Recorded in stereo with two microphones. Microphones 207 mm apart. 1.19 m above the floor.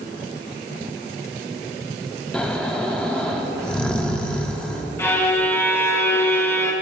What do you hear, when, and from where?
2.3 s snoring: 5° left (ahead or behind), 0.9 m
5.0 s a violin: 10° left (ahead or behind), 0.9 m